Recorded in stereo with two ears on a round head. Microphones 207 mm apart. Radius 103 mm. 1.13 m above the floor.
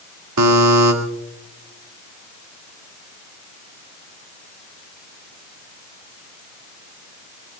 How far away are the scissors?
No scissors in this recording.